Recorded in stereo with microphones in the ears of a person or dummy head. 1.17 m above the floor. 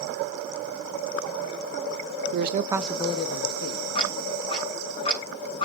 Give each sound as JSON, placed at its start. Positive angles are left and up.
{"t": 2.3, "sound": "a man speaking", "side_deg": -60, "distance_m": 0.9}
{"t": 4.0, "sound": "ticking", "side_deg": 35, "distance_m": 7.0}